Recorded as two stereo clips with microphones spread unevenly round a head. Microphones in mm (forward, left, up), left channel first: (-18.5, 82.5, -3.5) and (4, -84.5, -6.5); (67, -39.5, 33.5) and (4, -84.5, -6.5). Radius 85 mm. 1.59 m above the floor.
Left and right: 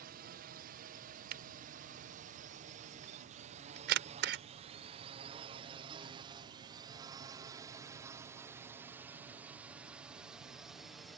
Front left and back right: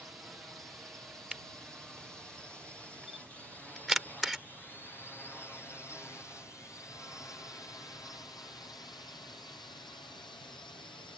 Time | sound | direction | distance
0.0 | a drone | 80° right | ?
1.3 | a camera shutter | 50° right | ?